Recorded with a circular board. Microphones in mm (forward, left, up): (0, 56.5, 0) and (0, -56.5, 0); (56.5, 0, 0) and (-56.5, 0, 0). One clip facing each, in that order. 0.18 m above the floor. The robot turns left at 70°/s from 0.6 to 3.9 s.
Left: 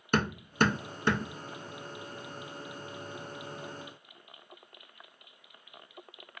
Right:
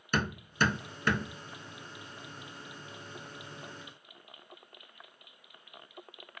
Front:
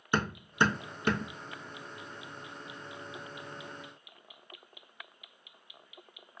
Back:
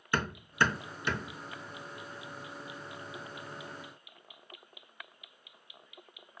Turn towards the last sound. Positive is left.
turn(degrees=-165)